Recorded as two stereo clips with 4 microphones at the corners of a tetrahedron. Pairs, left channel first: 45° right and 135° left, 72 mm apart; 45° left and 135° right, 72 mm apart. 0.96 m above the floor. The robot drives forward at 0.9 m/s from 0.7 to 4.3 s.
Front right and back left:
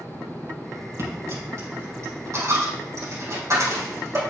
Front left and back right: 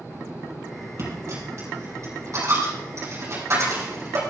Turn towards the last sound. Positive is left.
turn(degrees=180)